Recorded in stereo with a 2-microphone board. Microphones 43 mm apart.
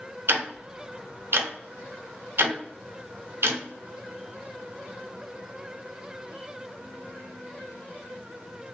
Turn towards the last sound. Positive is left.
turn(degrees=-60)  # may be behind; listen again after turning